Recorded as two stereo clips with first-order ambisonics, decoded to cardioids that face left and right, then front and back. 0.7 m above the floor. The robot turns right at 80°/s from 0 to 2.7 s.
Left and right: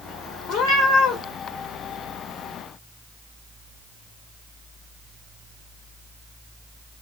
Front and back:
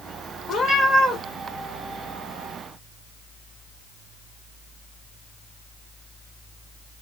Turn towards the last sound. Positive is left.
turn(degrees=-130)